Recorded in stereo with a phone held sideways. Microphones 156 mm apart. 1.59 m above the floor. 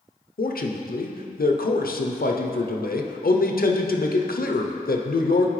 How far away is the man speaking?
About 0.6 m.